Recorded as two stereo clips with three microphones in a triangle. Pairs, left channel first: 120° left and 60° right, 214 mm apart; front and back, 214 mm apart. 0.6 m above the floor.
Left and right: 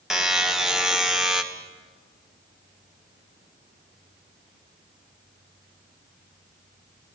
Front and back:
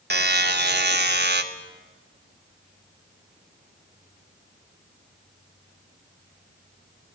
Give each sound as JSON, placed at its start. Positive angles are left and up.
{"t": 0.1, "sound": "a buzzer", "azimuth_deg": -150, "distance_m": 1.7}